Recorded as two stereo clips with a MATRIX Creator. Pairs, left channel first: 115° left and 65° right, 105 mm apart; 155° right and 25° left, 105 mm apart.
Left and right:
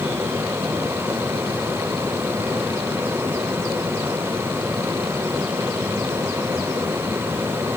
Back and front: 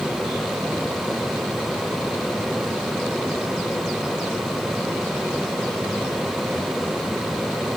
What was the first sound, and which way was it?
Only background noise.